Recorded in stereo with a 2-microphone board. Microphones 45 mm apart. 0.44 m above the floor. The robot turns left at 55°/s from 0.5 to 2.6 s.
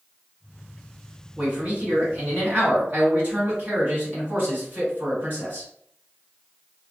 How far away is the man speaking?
About 1.9 m.